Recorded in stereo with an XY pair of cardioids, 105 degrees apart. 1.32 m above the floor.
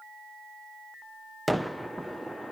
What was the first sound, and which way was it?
A gunshot, straight ahead.